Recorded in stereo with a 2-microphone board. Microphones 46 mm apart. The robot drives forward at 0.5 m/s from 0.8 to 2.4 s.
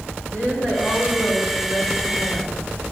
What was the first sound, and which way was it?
A woman speaking, 40° left (ahead or behind).